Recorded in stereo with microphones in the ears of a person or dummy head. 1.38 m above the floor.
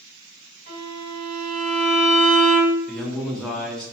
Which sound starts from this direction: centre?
A man speaking, at 2.9 s.